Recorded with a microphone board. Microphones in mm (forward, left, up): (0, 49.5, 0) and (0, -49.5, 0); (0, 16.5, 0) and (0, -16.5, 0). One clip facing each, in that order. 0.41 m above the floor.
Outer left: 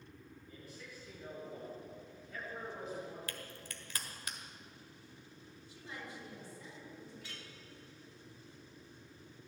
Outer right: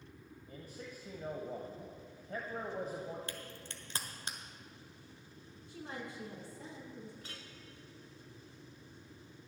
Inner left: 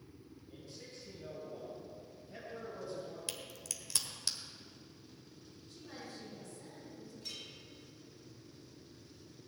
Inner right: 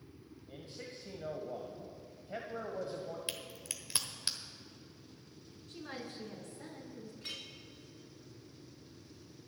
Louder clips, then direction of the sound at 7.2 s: Even, inner right 3 dB; 45° right (ahead or behind).